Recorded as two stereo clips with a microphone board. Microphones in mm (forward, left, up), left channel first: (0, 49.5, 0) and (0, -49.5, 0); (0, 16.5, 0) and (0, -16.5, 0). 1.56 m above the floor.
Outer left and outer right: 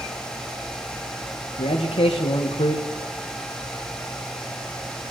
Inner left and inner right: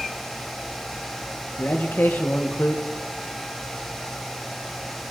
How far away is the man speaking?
About 1.3 m.